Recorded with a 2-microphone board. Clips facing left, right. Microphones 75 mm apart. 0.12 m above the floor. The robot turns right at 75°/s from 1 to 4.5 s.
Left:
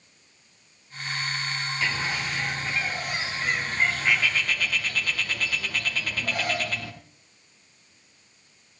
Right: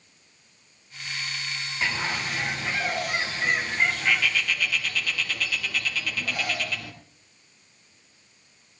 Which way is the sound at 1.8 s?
160° right.